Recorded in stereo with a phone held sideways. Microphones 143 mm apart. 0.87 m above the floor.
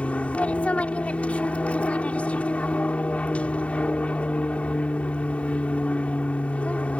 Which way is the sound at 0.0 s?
10° left (ahead or behind).